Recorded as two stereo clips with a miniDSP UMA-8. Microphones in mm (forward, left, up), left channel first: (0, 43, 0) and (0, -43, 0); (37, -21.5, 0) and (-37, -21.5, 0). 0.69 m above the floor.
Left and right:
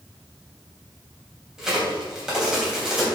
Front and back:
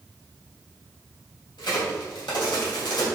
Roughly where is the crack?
Ahead.